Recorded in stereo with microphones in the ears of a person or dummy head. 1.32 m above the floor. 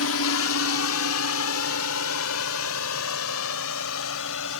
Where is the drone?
70° left (ahead or behind).